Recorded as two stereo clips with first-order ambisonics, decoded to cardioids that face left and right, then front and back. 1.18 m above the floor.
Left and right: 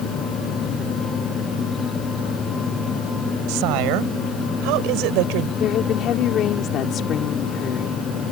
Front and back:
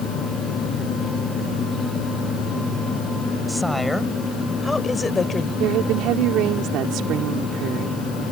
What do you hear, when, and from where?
3.5 s a woman speaking: 90° right; by 5.5 s 70° right
5.6 s a woman speaking: 140° left